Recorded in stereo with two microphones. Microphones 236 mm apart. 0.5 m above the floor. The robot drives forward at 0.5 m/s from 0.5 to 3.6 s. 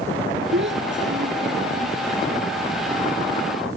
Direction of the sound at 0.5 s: 55° right (ahead or behind).